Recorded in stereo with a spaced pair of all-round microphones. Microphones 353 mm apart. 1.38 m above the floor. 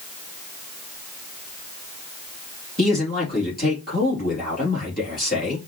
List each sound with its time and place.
2.8 s a man speaking: 25° left (ahead or behind), 3 m